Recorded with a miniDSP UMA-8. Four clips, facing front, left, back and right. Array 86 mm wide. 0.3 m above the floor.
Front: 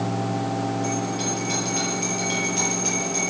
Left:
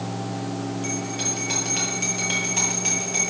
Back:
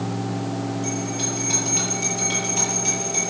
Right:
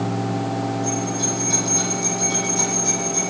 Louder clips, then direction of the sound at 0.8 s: Right 5 dB, front 1 dB; 95° left.